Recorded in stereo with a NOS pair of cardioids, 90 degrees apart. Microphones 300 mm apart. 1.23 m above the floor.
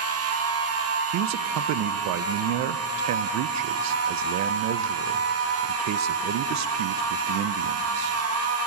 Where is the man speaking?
65° right, 0.5 m.